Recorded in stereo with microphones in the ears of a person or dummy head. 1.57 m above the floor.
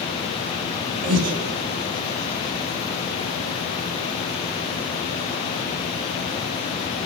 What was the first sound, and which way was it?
Breathing, 40° right (ahead or behind).